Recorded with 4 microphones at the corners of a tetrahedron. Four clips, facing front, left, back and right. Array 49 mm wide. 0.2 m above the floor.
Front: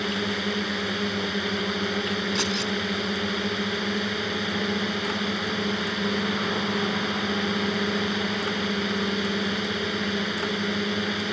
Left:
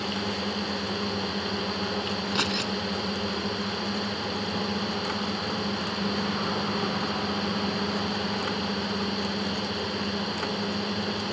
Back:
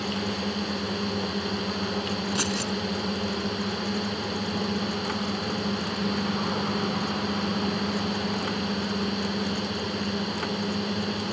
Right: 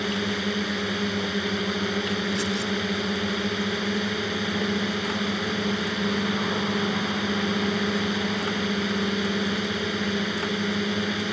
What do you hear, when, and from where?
0.0 s a drone: 40° right
2.4 s keys jangling: 100° left